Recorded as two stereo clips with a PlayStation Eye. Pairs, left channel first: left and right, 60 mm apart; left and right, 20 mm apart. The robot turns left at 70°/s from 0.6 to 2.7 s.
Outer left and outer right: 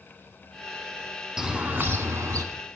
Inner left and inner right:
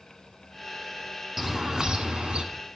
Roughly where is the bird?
Ahead.